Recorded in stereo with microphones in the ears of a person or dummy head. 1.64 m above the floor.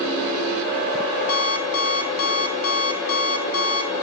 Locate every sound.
1.3 s an alarm clock: 55° left (ahead or behind), 1.7 m